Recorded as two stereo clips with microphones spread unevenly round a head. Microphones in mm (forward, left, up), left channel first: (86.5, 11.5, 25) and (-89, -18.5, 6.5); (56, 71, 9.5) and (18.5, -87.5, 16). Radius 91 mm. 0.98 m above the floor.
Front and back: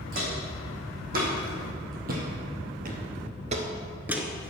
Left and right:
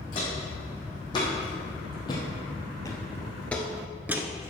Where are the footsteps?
145° left, 4.5 m; by 4.5 s 55° right, 1.1 m.